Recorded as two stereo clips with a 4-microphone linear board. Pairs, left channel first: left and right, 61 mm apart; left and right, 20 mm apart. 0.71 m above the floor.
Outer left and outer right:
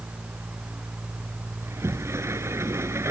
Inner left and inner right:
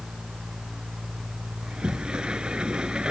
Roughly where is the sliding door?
Right.